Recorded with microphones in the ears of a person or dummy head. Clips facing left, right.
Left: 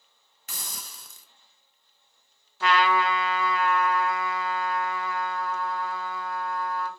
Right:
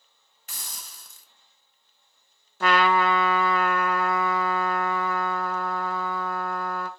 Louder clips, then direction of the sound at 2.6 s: Right 2 dB; 45° right (ahead or behind).